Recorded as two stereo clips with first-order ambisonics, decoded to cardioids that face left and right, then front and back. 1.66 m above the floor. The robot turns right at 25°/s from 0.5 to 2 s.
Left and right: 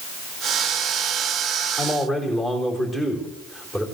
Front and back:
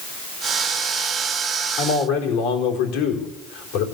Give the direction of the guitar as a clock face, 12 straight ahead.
No guitar in this recording.